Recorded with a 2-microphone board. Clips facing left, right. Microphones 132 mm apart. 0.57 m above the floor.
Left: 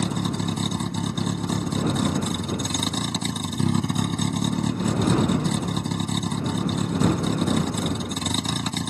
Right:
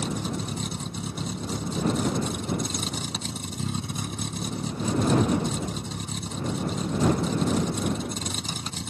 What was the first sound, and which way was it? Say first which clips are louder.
A vehicle: left 4 dB; 80° left.